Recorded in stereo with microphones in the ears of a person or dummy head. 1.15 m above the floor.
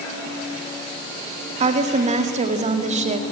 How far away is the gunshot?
No gunshot in this recording.